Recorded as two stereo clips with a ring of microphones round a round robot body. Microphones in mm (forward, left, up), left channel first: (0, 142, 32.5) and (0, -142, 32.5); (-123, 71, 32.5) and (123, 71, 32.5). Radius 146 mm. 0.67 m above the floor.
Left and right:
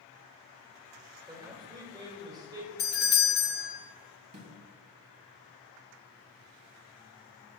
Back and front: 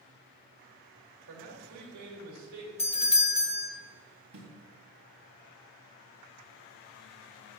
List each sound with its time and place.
1.3 s a man speaking: 15° right, 2.5 m
2.8 s a doorbell: 125° left, 1.2 m
4.3 s a snare drum: 45° right, 2.5 m